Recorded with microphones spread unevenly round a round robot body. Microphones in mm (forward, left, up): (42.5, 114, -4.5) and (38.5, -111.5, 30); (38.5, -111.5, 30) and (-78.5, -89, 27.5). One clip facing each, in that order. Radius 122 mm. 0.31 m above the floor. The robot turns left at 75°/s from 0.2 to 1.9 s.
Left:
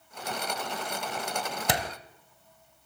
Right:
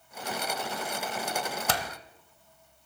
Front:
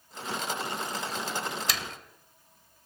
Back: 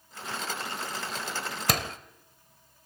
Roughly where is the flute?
No flute in this recording.